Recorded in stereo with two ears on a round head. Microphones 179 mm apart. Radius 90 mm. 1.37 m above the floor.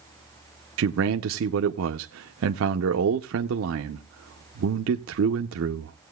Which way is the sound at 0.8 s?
70° right (ahead or behind).